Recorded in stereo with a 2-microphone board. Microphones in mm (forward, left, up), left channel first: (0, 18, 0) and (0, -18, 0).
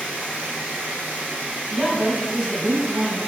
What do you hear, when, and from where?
0.0 s running water: 60° right (ahead or behind), 1.3 m
1.7 s a woman speaking: 5° right (ahead or behind), 0.9 m